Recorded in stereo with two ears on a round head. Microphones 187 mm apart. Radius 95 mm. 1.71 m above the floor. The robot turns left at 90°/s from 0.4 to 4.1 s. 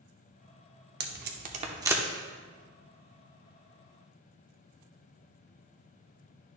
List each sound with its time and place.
1.0 s tape being pulled: 50° right (ahead or behind), 0.9 m; by 2.0 s 5° right (ahead or behind), 0.9 m